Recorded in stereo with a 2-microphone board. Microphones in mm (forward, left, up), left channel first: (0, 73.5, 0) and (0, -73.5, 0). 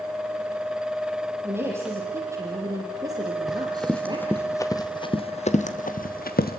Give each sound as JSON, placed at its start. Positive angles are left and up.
{"t": 1.4, "sound": "a woman speaking", "side_deg": -15, "distance_m": 5.5}
{"t": 3.5, "sound": "running footsteps", "side_deg": 0, "distance_m": 3.0}